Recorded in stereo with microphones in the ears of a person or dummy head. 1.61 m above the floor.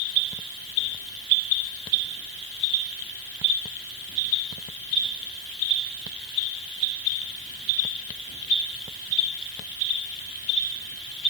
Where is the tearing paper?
No tearing paper in this recording.